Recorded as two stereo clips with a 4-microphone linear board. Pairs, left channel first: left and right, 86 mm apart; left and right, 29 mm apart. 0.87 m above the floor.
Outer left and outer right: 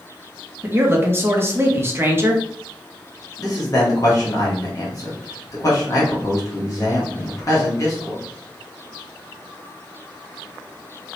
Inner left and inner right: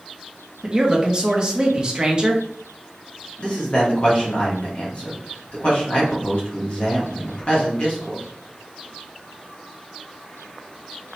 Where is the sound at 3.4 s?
40° left (ahead or behind), 1.4 m.